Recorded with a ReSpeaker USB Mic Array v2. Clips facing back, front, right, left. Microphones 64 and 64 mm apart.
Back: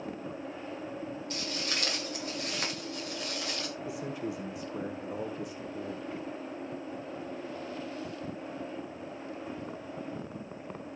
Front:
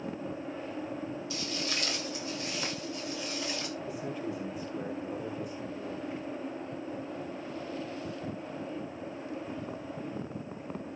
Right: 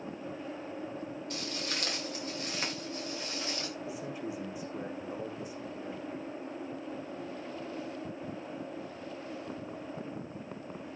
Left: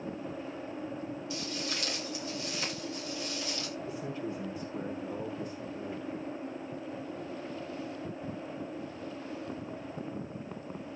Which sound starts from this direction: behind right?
Footsteps, at 1.3 s.